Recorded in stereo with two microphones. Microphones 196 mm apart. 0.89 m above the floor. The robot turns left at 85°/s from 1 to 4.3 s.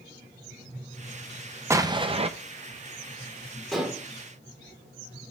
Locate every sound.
1.7 s an explosion: 25° right, 0.7 m; by 2.3 s 75° right, 0.7 m
3.7 s dishes clattering: centre (ahead or behind), 1.7 m; by 4.0 s 25° right (ahead or behind), 1.7 m